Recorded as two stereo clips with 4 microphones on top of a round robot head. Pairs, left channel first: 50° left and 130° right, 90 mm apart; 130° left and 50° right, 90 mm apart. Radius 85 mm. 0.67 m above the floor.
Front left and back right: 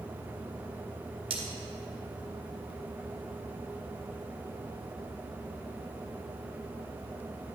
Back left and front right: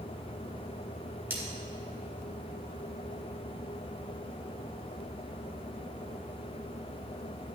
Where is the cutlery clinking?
120° right, 2.0 m.